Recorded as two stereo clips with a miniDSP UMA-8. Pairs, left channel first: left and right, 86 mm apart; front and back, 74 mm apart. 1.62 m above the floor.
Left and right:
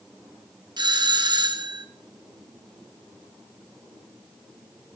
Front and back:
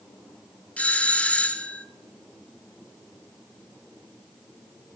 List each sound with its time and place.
0.8 s a doorbell: 70° right, 1.5 m